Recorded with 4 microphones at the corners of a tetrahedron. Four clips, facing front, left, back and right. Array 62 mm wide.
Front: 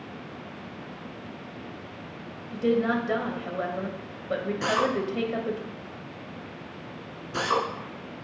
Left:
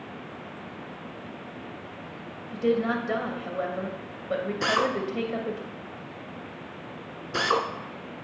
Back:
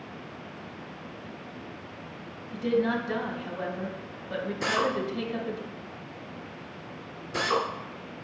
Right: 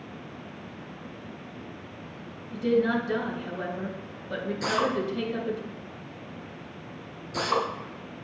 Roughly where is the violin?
I don't hear a violin.